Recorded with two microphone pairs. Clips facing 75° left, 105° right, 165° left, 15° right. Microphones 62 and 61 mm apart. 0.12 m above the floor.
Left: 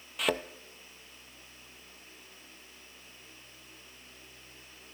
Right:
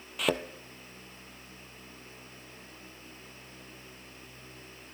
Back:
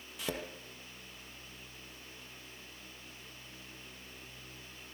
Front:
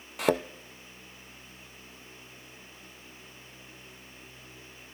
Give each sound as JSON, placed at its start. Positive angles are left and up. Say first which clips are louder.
{"t": 0.2, "sound": "a thud", "louder": "right 1 dB, front 13 dB", "azimuth_deg": -10, "distance_m": 0.5}